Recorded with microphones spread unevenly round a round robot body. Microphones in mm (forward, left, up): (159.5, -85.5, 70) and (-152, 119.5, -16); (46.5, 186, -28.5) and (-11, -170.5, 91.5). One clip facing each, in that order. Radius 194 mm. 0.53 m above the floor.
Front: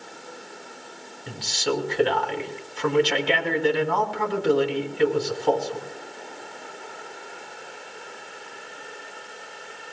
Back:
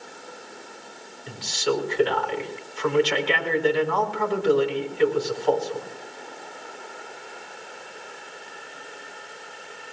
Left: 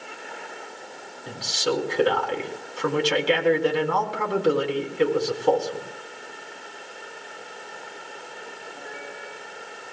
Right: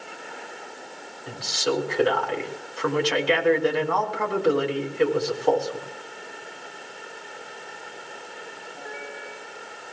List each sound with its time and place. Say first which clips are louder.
1.3 s a man speaking: back 1 dB, even; 10° left, 4 m